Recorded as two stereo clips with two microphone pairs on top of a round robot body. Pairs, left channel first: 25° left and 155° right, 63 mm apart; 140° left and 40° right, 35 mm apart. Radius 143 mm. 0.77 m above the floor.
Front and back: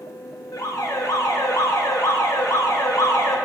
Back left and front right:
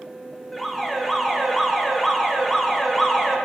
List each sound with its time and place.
0.5 s an alarm: 45° left, 3 m